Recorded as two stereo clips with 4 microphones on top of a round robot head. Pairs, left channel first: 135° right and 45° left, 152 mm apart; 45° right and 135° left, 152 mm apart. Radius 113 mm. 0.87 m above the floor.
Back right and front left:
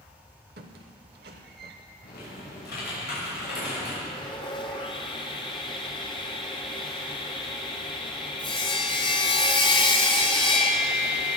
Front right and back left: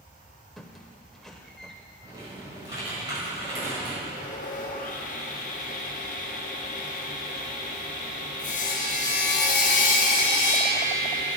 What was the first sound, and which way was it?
A squeak, 45° left.